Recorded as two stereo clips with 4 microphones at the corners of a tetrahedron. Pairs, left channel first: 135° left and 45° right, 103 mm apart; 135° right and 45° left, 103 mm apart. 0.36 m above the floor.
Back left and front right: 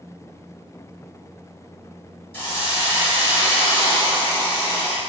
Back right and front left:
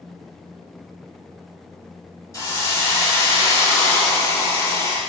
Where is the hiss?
170° right, 0.9 m.